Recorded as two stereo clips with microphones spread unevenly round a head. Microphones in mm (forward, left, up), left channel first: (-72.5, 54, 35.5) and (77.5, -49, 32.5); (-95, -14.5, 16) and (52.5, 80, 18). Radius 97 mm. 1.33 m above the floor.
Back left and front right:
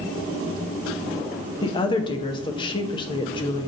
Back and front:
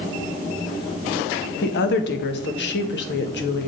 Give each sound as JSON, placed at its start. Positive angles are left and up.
{"t": 1.6, "sound": "a woman speaking", "azimuth_deg": -150, "distance_m": 0.9}